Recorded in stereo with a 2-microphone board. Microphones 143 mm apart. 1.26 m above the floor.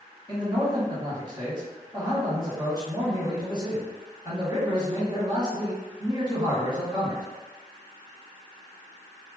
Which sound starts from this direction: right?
A man speaking, at 0.3 s.